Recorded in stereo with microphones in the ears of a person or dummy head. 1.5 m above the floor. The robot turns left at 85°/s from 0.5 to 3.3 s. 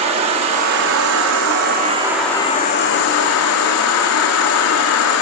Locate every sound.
0.0 s an insect: 35° right, 0.8 m; by 5.2 s 85° left, 0.8 m